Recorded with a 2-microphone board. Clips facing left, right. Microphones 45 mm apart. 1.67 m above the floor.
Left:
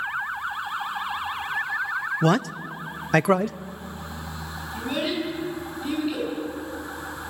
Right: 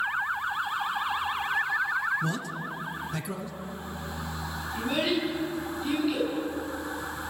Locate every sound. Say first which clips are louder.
2.2 s a man speaking: left 9 dB; 60° left (ahead or behind), 0.6 m
4.7 s a child speaking: even; 5° left (ahead or behind), 10 m